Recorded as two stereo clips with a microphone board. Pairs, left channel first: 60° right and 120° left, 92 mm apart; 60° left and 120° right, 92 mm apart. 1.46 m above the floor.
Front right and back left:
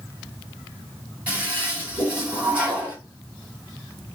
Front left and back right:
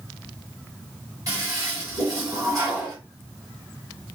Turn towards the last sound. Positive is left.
turn(degrees=-170)